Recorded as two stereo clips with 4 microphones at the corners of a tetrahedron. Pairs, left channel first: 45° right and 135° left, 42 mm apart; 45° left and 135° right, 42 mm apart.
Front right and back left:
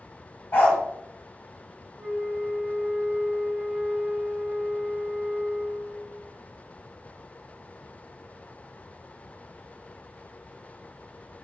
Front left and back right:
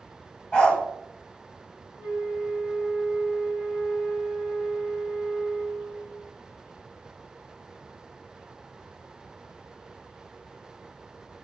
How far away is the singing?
I don't hear singing.